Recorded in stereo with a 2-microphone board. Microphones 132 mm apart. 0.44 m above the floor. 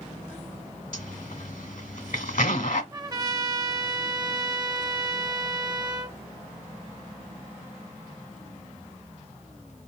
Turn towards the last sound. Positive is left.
turn(degrees=-30)  # may be behind; listen again after turning